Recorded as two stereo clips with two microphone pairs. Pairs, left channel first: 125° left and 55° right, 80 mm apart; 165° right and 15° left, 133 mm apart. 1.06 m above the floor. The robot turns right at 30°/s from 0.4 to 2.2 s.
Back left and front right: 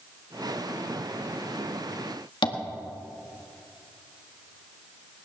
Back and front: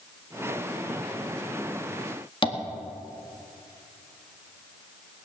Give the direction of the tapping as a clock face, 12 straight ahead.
7 o'clock.